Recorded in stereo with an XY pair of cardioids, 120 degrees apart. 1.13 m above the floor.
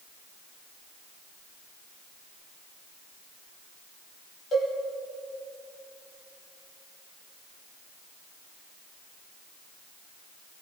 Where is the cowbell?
35° left, 6 m.